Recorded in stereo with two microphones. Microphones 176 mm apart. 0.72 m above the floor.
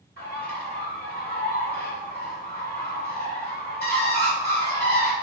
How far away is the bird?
About 5 m.